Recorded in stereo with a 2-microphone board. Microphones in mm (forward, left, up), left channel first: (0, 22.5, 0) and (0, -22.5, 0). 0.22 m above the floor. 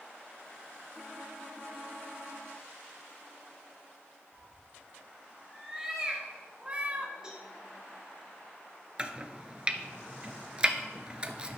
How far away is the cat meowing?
About 3.5 m.